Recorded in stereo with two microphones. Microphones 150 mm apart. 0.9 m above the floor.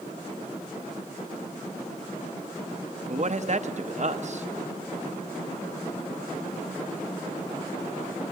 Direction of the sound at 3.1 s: 50° right (ahead or behind).